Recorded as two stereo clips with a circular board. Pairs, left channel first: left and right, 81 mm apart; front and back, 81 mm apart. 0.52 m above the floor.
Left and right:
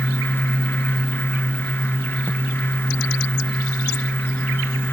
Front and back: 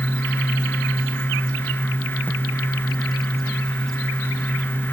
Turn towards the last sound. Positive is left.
No sound to turn to.